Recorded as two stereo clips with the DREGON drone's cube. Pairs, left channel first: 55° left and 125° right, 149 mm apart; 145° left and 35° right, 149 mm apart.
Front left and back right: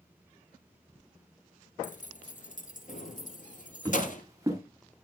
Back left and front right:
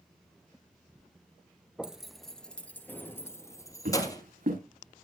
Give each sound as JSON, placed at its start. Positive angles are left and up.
{"t": 1.8, "sound": "keys jangling", "azimuth_deg": 50, "distance_m": 1.5}
{"t": 3.9, "sound": "footsteps", "azimuth_deg": -55, "distance_m": 8.0}